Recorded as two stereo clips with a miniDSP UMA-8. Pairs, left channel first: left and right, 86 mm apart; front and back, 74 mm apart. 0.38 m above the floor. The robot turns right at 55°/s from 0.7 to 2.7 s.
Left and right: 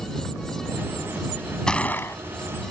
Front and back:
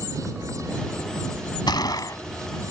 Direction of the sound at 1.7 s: 10° left.